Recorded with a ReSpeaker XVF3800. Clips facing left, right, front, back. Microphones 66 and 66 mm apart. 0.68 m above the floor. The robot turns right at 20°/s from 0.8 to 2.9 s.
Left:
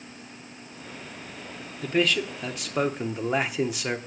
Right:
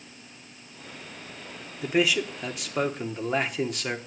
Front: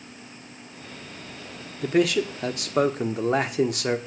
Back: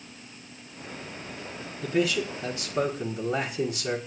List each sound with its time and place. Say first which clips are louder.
1.8 s a man speaking: even, front 4 dB; 15° right, 1.1 m; by 4.0 s 5° left, 1.1 m